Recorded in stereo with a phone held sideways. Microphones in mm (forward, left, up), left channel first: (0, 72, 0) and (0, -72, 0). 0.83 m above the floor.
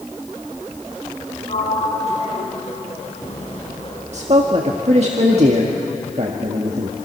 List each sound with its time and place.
1.5 s a sliding door: 45° left (ahead or behind), 6 m
4.1 s a man speaking: 50° right (ahead or behind), 1.6 m